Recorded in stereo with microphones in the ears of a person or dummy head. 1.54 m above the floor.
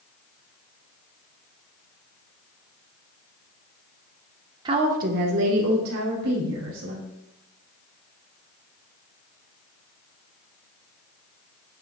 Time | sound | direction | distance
4.7 | a woman speaking | 25° right (ahead or behind) | 1.1 m